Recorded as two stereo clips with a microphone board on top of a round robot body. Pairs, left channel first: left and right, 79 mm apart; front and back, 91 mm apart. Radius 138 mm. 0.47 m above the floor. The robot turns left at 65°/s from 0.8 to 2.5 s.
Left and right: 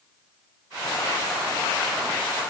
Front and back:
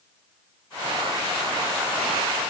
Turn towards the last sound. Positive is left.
No sound to turn to.